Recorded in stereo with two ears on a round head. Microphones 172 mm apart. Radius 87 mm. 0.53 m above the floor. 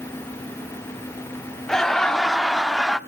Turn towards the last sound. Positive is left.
turn(degrees=5)  # may be behind; listen again after turning